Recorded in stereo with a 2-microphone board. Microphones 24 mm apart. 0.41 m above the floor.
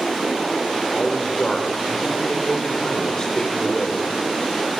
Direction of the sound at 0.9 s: 30° left (ahead or behind).